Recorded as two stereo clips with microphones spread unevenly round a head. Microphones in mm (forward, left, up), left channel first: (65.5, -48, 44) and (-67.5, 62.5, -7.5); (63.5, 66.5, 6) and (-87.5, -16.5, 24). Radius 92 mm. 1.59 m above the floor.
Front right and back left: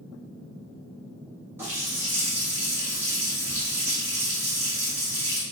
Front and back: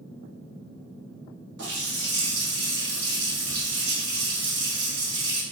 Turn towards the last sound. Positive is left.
turn(degrees=-135)